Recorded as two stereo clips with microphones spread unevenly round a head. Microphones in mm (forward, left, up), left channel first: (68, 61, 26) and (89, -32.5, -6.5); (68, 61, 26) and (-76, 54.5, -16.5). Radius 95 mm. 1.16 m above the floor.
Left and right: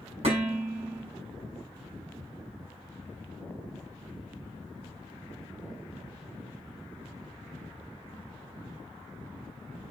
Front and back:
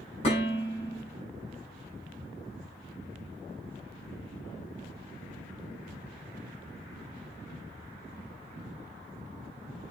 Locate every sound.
0.2 s dishes clattering: 55° right, 5.5 m